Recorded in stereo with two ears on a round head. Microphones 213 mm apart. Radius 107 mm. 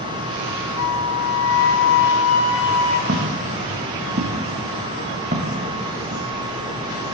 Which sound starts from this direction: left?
A flute, at 0.8 s.